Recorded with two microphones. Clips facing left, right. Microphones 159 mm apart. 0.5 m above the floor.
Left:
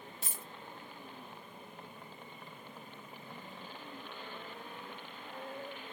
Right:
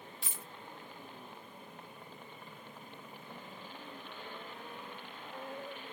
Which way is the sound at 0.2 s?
45° left (ahead or behind).